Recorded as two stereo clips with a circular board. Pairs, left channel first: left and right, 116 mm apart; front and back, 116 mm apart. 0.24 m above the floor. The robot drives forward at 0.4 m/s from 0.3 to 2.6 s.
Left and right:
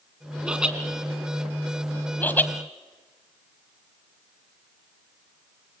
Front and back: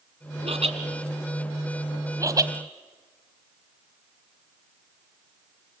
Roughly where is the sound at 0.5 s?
Behind.